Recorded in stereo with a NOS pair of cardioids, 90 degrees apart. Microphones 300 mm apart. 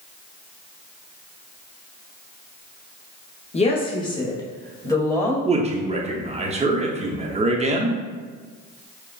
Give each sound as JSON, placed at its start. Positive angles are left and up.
{"t": 3.5, "sound": "a woman speaking", "azimuth_deg": 20, "distance_m": 0.8}
{"t": 5.5, "sound": "a man speaking", "azimuth_deg": -20, "distance_m": 0.8}